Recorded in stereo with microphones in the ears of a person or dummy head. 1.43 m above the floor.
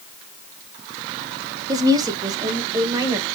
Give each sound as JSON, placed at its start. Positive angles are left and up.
{"t": 1.7, "sound": "a woman speaking", "side_deg": -25, "distance_m": 0.8}